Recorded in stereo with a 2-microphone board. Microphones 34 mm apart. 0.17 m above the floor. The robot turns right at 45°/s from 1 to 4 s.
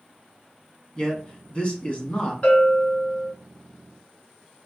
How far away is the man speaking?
About 1.4 m.